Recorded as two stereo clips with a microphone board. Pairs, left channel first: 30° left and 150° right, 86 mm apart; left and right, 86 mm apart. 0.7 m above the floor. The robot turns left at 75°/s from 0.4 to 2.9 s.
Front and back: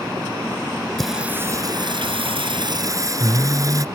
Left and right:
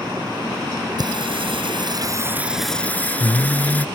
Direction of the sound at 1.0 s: 55° right.